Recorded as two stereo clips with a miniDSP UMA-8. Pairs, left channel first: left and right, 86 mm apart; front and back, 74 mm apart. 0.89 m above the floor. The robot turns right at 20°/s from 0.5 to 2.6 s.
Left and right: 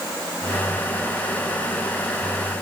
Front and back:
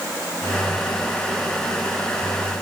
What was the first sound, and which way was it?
Only background noise.